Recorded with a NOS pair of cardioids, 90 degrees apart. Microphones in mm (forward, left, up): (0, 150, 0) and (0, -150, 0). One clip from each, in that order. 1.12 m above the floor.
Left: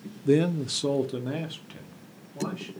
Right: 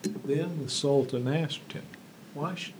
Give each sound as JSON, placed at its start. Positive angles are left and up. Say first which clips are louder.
{"t": 0.2, "sound": "a man speaking", "louder": "left 8 dB", "azimuth_deg": 40, "distance_m": 0.6}